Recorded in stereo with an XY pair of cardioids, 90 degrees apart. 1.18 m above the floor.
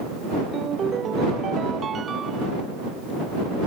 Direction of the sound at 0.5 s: 50° right.